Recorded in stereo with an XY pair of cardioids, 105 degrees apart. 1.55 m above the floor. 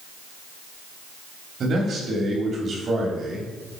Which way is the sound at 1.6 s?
50° right.